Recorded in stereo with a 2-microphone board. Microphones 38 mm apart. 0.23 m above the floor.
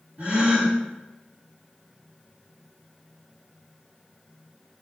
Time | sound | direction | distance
0.2 | a gasp | 30° right (ahead or behind) | 1.9 m